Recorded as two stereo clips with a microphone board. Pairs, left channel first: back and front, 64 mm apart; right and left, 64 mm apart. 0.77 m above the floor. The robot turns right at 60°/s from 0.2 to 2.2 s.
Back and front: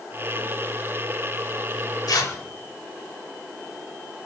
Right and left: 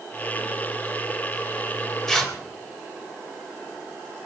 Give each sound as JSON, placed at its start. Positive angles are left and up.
{"t": 2.1, "sound": "tearing paper", "azimuth_deg": -175, "distance_m": 2.5}